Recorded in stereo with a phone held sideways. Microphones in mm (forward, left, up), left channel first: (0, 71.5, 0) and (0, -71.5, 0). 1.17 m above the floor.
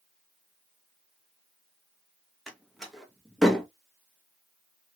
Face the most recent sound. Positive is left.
turn(degrees=0)  # may be behind; listen again after turning